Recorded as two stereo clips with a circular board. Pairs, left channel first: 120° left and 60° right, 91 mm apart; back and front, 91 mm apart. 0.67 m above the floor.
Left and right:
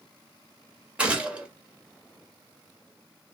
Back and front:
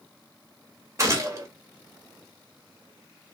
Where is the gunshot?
5° left, 1.2 m.